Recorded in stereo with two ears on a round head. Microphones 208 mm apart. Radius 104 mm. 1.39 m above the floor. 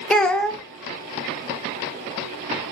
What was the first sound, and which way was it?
A child speaking, 5° left (ahead or behind).